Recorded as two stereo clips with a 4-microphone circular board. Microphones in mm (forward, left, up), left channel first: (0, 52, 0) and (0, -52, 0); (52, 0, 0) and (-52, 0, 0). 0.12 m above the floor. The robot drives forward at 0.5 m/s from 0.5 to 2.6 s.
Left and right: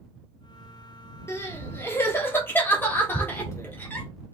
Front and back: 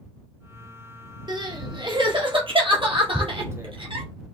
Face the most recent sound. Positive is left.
turn(degrees=130)